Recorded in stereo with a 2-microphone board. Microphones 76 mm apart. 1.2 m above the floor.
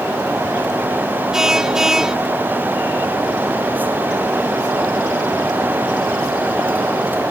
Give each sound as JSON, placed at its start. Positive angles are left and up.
{"t": 1.3, "sound": "a car horn", "side_deg": -5}